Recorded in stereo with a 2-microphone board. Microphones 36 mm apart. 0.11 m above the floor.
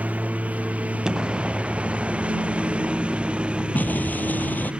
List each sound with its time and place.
0.0 s a lawn mower: 45° right (ahead or behind); by 4.8 s 30° right (ahead or behind)
1.1 s an explosion: 20° right (ahead or behind)
3.8 s an explosion: 65° left (ahead or behind)